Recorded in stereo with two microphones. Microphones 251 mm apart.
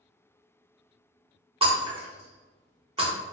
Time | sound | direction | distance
1.6 | breaking glass | 25° right (ahead or behind) | 1.2 m